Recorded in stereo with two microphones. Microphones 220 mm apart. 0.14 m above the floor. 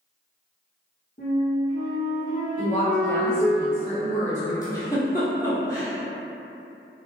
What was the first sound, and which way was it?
A flute, 45° left (ahead or behind).